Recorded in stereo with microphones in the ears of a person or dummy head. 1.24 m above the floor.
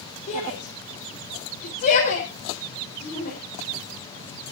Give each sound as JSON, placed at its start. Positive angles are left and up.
{"t": 0.3, "sound": "a shout", "side_deg": 45, "distance_m": 4.0}